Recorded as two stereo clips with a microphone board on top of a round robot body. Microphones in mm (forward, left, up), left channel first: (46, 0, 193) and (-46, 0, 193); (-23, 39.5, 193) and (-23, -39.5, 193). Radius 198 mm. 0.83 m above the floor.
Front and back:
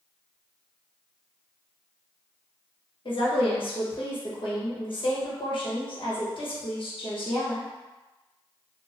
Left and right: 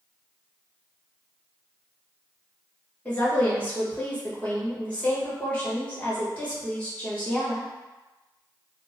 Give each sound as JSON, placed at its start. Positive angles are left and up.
{"t": 3.0, "sound": "a woman speaking", "azimuth_deg": 20, "distance_m": 1.5}